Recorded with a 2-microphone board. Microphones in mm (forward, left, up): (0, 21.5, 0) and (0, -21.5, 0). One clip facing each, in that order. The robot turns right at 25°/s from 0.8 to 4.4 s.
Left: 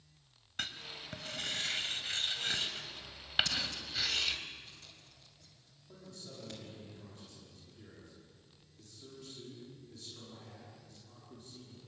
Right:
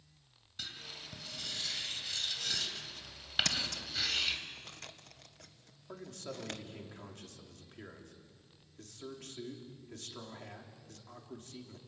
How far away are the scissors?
About 1.5 m.